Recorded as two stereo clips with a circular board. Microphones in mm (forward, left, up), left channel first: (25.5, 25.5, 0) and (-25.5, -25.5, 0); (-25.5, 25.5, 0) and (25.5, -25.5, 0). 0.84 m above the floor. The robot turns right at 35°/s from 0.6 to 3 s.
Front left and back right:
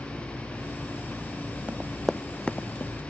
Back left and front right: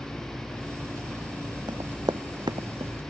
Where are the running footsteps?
65° right; by 2.9 s 15° right.